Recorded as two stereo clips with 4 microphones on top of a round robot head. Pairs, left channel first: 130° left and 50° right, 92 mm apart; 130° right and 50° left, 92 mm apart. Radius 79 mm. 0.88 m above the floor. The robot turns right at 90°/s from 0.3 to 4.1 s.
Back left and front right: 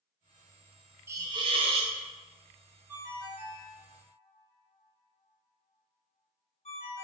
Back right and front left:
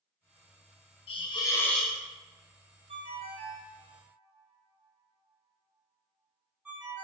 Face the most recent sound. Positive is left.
turn(degrees=135)